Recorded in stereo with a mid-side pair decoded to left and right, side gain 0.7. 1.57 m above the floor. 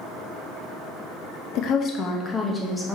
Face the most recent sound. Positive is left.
turn(degrees=5)